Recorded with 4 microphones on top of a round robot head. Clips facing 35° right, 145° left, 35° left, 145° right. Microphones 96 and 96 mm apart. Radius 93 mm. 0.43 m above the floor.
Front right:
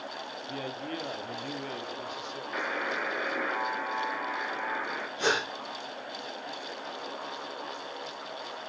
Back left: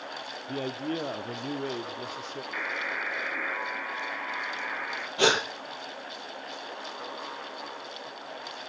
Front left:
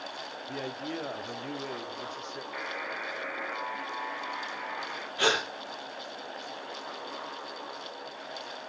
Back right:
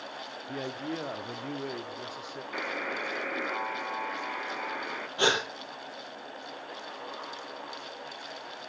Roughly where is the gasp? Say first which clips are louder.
Back left 4 dB, back right 1 dB; behind left.